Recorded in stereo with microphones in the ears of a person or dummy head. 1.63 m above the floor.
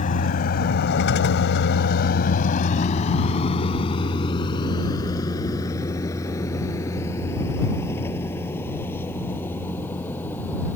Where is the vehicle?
45° left (ahead or behind); by 10.8 s 10° left (ahead or behind).